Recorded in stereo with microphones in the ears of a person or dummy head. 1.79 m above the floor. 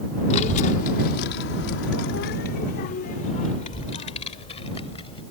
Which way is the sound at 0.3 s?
45° left (ahead or behind).